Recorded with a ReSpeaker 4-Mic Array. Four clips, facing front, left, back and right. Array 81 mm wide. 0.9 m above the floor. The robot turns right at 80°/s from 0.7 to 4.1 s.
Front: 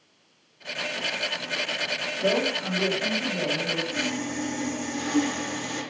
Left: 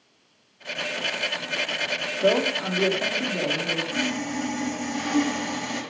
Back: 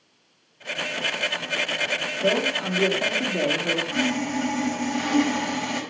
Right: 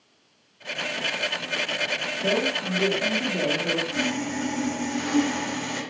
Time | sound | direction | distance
2.2 | a man speaking | 90° left | 2 m
3.9 | sawing | 170° left | 4.5 m